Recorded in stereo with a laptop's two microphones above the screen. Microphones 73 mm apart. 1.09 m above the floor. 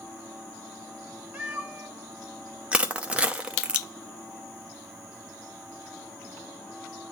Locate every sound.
1.3 s a cat meowing: 20° right (ahead or behind), 1.1 m
2.7 s crushing: 15° right (ahead or behind), 0.7 m